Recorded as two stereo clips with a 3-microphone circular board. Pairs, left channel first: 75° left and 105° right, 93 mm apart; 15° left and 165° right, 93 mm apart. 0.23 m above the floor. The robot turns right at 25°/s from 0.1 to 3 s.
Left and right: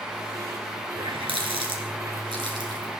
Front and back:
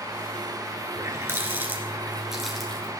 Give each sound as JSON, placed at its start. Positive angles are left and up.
{"t": 1.0, "sound": "a running tap", "azimuth_deg": -115, "distance_m": 2.0}